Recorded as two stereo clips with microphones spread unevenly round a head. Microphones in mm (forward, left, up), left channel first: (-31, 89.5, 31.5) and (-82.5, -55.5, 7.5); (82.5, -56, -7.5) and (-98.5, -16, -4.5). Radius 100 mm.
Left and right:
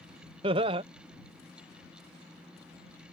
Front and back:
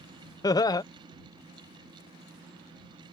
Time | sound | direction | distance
0.4 | laughter | 65° right | ?